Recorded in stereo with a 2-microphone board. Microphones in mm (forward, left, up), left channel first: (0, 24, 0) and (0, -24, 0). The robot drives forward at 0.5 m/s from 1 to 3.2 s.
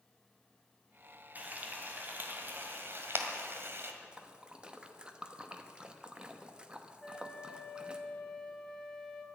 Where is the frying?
35° right (ahead or behind), 2.0 m; by 3.9 s 55° right (ahead or behind), 1.5 m.